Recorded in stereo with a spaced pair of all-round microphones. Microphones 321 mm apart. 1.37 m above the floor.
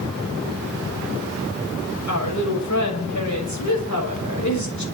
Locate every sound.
2.1 s a woman speaking: 65° left (ahead or behind), 6 m